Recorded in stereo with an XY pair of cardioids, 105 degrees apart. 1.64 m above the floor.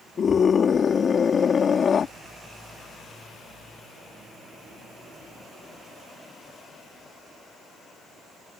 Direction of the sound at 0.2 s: 40° left.